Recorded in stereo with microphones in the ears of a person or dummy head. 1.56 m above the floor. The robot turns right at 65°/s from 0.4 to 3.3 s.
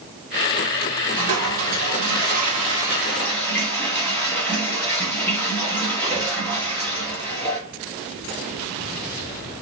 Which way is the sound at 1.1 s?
125° right.